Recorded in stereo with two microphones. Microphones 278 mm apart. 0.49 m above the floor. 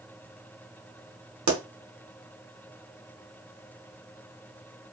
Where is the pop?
80° right, 0.9 m.